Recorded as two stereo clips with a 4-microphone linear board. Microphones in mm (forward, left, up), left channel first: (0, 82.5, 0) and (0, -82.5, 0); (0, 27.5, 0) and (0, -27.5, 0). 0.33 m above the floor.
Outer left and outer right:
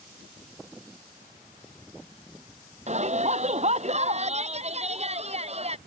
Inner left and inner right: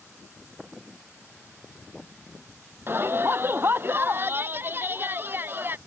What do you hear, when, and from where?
2.9 s a shout: 45° right (ahead or behind); by 5.8 s 40° right (ahead or behind)